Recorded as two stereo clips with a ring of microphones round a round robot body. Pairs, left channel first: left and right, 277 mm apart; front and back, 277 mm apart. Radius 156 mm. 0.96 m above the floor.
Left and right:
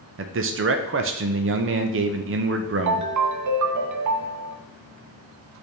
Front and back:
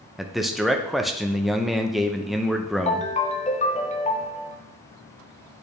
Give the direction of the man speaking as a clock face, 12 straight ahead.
3 o'clock.